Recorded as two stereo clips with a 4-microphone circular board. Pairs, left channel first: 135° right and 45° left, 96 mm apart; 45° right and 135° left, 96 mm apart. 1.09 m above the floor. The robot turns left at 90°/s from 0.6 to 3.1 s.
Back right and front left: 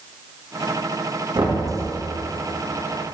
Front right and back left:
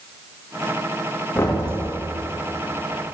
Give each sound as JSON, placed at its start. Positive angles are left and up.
{"t": 1.4, "sound": "knocking", "azimuth_deg": 30, "distance_m": 1.5}